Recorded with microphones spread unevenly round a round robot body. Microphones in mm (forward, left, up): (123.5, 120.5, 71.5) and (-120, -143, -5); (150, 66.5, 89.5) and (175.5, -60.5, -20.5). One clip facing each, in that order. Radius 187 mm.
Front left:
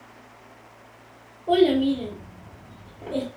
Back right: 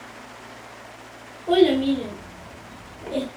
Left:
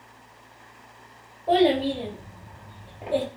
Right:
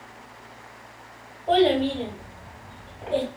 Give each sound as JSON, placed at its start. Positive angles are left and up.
{"t": 1.5, "sound": "a child speaking", "azimuth_deg": -95, "distance_m": 0.8}